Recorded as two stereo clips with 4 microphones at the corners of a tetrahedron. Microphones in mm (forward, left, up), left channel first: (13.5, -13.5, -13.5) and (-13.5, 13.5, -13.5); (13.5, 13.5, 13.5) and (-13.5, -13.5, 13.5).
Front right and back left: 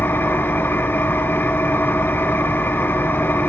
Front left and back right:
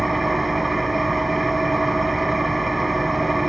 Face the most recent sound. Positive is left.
turn(degrees=-45)